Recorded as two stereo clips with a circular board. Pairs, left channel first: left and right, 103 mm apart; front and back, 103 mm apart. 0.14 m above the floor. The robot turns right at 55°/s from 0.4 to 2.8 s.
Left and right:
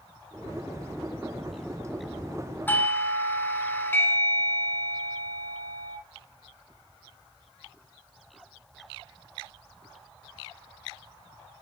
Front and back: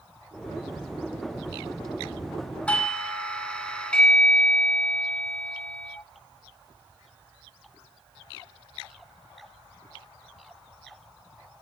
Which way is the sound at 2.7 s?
55° left.